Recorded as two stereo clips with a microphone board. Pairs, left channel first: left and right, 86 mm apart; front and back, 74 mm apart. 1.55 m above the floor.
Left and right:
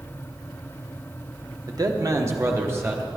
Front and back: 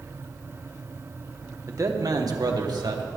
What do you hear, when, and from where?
1.7 s a man speaking: 135° right, 1.2 m; by 3.1 s 155° right, 2 m